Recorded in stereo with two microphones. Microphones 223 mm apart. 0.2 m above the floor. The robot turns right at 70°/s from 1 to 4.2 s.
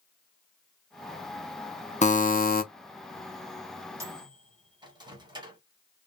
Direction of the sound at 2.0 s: 55° left.